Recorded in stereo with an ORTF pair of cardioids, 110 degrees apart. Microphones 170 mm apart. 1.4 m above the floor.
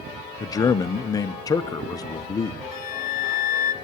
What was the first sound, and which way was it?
A man speaking, 20° left.